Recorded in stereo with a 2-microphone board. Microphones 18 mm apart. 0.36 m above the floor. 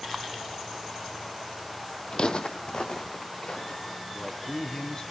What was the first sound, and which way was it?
Footsteps, 55° left (ahead or behind).